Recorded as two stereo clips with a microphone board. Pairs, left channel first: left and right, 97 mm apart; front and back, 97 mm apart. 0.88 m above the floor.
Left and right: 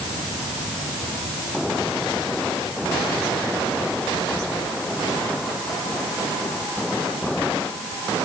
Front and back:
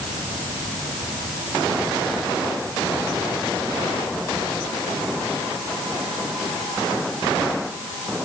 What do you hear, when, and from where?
Only background noise.